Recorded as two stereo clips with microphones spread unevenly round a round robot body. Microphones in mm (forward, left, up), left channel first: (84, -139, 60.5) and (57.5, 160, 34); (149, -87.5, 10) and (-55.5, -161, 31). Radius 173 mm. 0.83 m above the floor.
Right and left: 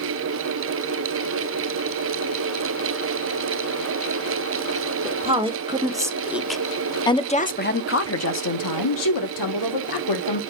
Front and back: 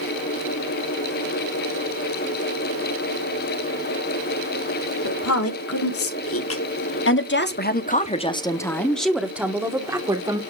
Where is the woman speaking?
25° left, 2.5 m; by 10.4 s 90° right, 2 m.